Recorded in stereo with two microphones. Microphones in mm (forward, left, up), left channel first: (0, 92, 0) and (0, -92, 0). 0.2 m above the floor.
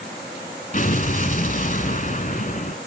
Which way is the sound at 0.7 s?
50° left (ahead or behind).